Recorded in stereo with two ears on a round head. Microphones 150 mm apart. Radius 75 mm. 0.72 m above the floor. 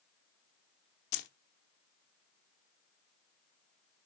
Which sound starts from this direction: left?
Keys jangling, at 1.1 s.